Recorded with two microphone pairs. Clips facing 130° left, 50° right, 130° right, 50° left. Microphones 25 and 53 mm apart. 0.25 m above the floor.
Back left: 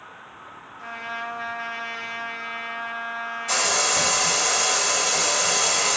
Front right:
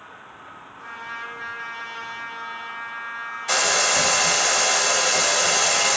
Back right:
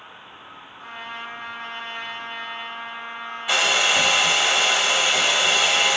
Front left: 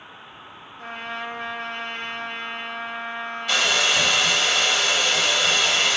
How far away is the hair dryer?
About 0.6 m.